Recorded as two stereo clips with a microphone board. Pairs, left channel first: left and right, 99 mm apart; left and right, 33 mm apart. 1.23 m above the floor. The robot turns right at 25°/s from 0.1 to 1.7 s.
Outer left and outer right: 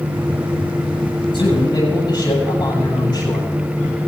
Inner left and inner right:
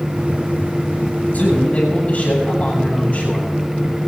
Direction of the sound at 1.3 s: 50° left (ahead or behind).